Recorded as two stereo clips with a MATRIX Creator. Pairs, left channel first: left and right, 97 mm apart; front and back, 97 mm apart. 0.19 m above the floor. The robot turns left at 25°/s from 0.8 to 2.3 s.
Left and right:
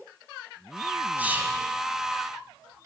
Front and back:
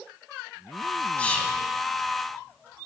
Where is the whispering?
50° right, 1.4 m; by 1.6 s 60° right, 1.4 m.